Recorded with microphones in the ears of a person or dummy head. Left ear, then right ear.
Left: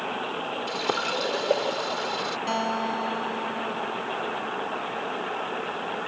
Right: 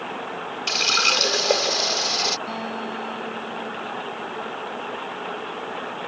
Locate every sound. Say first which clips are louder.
0.7 s a running tap: right 10 dB; 55° right (ahead or behind)
2.5 s a guitar: left 3 dB; 50° left (ahead or behind)